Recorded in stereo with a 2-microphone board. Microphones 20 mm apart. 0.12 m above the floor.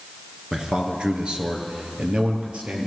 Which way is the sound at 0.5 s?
40° right (ahead or behind).